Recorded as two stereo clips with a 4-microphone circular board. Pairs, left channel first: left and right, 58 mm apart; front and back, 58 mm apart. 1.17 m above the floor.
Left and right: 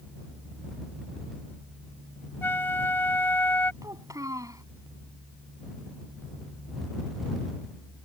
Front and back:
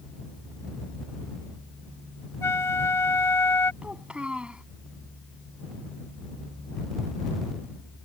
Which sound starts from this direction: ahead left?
A flute, at 2.4 s.